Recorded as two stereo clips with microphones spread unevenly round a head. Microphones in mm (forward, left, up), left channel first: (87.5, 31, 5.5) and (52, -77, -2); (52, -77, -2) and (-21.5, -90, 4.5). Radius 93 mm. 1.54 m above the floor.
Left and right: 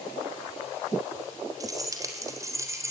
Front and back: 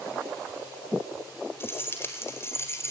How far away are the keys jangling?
About 4.5 m.